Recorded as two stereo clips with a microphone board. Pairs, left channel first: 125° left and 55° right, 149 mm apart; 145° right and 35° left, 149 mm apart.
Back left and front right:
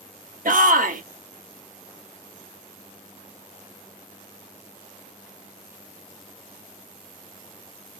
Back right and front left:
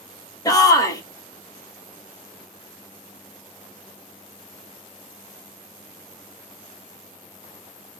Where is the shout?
80° right, 1.2 m.